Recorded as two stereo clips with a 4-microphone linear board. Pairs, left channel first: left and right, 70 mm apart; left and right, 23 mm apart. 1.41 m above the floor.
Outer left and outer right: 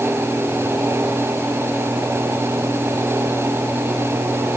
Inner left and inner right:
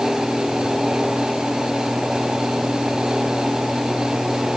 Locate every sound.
Only background noise.